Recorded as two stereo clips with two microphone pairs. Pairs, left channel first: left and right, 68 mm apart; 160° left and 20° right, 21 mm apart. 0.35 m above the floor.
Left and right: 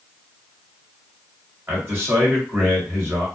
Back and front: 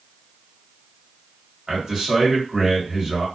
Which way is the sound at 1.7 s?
55° right.